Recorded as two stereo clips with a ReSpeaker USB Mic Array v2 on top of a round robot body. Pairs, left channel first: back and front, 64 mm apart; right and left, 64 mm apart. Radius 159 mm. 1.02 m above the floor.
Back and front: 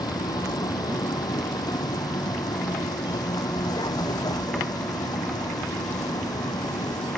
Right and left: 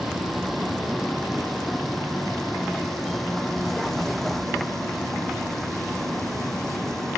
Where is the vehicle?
Straight behind; by 7.2 s 175° right.